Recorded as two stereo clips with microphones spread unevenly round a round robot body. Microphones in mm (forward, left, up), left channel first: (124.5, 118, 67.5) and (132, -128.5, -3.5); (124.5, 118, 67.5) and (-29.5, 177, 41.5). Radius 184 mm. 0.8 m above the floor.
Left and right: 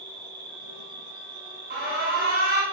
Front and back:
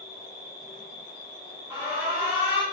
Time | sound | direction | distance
0.0 | an insect | 115° right | 0.8 m
1.7 | an alarm | 125° right | 0.9 m